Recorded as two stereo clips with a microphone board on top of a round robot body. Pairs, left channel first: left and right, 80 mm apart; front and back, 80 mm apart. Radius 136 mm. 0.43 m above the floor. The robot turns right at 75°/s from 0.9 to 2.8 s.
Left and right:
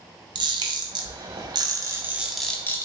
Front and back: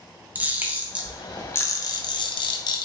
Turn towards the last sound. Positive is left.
turn(degrees=30)